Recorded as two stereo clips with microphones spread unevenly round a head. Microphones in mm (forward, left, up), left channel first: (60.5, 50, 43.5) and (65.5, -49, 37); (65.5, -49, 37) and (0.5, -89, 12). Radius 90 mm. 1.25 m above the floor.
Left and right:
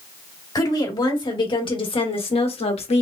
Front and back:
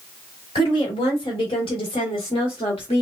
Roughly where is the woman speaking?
Ahead left.